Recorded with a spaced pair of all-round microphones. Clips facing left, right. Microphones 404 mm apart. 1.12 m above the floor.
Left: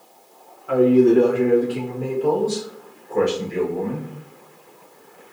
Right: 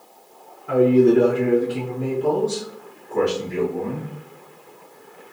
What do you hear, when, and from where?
0.7 s a man speaking: 35° right (ahead or behind), 0.6 m; by 4.1 s 30° right (ahead or behind), 2.5 m